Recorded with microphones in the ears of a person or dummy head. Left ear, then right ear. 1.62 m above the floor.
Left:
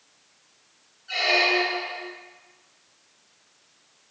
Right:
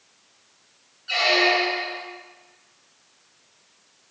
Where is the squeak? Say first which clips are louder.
Right 2 dB; 40° right (ahead or behind), 1.4 m.